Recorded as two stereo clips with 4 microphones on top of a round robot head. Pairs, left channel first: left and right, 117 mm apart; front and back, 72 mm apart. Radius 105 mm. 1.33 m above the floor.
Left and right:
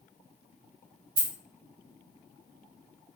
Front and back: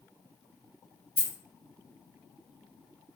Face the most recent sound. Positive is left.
turn(degrees=-50)